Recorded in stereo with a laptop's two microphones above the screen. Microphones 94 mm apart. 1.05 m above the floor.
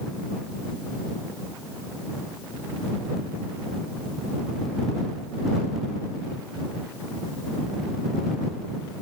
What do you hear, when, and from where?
Only background noise.